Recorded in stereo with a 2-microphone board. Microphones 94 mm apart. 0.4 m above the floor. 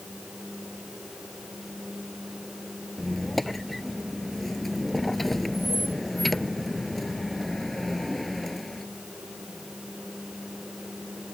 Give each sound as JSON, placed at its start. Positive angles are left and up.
{"t": 3.0, "sound": "a squeak", "side_deg": 0}